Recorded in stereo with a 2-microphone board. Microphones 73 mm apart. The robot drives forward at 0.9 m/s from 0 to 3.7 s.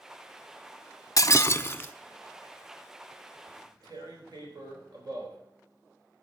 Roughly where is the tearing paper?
Right.